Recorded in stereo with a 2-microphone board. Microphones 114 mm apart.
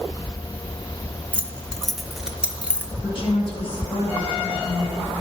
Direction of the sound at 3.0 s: 55° left (ahead or behind).